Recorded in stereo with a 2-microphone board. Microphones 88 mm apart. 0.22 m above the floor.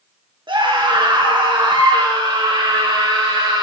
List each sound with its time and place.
0.5 s a scream: 55° right (ahead or behind), 2.5 m; by 3.6 s 45° right (ahead or behind), 4 m